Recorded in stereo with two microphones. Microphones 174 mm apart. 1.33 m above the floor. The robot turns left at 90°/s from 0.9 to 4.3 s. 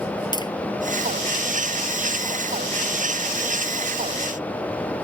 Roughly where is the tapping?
Left.